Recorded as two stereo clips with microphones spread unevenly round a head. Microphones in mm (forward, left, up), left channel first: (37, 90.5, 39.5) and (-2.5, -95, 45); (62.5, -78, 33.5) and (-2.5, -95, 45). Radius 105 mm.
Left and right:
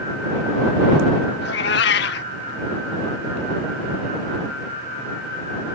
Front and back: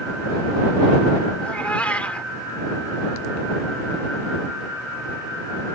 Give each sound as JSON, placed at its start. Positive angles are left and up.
{"t": 1.4, "sound": "a cat meowing", "azimuth_deg": 105}